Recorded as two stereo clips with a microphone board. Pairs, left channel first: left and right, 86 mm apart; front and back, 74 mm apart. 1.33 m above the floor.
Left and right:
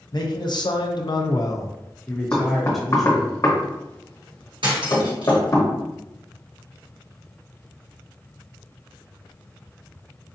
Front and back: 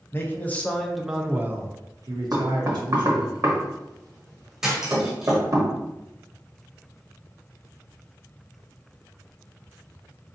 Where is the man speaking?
55° left, 0.8 m; by 3.3 s 175° right, 1.2 m.